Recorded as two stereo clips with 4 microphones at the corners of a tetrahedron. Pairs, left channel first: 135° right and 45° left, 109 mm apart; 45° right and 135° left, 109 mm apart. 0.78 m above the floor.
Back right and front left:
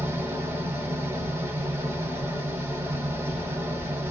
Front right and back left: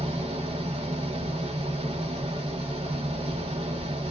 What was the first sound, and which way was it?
An engine running, 110° left.